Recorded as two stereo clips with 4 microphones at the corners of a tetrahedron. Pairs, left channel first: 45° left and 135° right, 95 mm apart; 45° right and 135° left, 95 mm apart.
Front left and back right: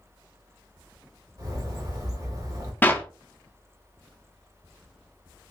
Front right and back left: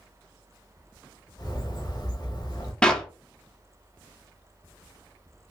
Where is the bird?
85° right, 0.8 m.